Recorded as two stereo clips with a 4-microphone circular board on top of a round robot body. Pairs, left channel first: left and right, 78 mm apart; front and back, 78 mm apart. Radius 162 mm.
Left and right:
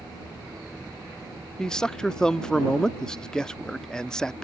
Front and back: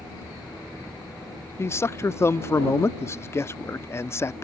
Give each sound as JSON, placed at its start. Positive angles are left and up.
{"t": 1.6, "sound": "a man speaking", "azimuth_deg": 15}